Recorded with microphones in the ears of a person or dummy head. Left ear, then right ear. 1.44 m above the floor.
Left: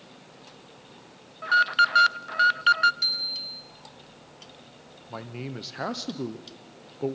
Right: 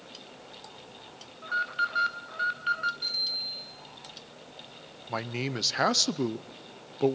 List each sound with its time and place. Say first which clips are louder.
1.4 s an alarm: left 9 dB; 35° left (ahead or behind), 0.6 m
3.0 s a bicycle bell: left 3 dB; 40° left (ahead or behind), 7.5 m
5.1 s a man speaking: right 5 dB; 60° right (ahead or behind), 0.6 m